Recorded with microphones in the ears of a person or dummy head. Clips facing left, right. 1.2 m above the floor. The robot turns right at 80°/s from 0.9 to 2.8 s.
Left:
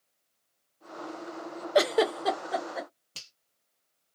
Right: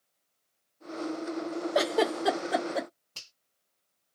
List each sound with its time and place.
1.8 s a giggle: 35° left (ahead or behind), 0.7 m; by 2.9 s 50° right (ahead or behind), 0.7 m
3.1 s a finger snap: 40° left (ahead or behind), 1.2 m